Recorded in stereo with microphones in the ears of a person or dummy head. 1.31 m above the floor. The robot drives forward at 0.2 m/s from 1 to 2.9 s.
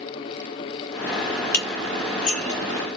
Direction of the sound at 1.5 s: 45° left (ahead or behind).